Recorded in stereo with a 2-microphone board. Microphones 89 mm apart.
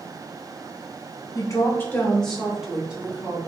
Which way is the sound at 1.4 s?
45° left (ahead or behind).